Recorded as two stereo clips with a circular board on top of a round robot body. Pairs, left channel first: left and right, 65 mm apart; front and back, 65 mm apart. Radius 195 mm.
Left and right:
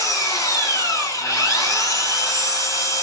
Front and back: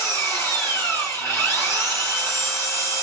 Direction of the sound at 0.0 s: 50° left.